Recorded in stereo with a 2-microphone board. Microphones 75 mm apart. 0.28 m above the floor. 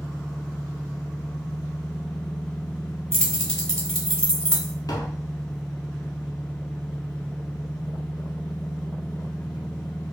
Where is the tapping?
60° left (ahead or behind), 0.8 m.